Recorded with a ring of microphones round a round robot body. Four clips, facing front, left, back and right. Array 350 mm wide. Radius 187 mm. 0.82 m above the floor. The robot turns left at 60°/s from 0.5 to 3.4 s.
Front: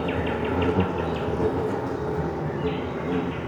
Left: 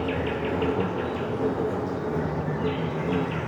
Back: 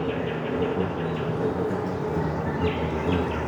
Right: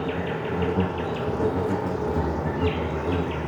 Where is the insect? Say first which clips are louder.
Left 1 dB, front 1 dB; 10° left, 0.9 m; by 3.5 s 165° right, 0.9 m.